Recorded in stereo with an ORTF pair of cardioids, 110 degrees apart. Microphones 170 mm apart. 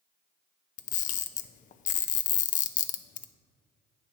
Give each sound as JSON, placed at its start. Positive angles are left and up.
{"t": 0.8, "sound": "a camera shutter", "azimuth_deg": 50, "distance_m": 0.6}